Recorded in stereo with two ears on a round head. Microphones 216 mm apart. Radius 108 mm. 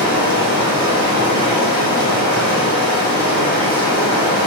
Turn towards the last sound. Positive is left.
turn(degrees=-85)